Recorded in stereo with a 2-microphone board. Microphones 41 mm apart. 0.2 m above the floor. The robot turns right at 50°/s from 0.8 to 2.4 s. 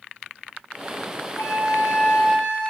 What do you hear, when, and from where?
1.4 s a flute: 90° left, 4 m; by 2.7 s 145° left, 4 m